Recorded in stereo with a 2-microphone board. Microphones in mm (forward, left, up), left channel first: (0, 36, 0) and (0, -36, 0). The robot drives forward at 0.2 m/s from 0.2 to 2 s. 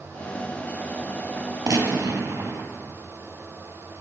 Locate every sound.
1.7 s a gunshot: 45° right (ahead or behind), 1.4 m